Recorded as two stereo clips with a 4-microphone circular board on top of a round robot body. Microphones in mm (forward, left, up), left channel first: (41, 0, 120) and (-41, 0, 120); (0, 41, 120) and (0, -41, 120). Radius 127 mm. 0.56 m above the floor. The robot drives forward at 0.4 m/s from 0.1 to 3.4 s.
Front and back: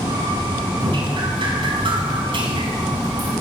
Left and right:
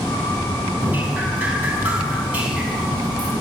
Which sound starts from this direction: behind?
Dripping, at 0.8 s.